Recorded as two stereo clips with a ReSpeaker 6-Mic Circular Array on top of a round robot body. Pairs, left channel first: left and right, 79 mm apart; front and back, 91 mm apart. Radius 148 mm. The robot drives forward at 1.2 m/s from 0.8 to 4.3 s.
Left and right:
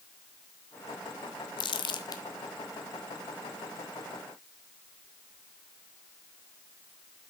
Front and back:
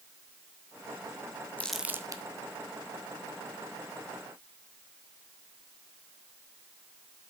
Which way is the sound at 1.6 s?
75° left.